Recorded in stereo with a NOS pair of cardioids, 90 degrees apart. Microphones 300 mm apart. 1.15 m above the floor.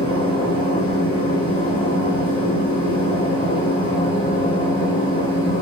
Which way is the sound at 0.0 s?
15° left.